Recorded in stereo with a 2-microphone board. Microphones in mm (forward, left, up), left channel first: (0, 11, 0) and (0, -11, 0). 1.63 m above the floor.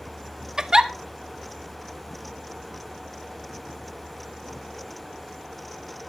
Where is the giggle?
30° right (ahead or behind), 1.3 m.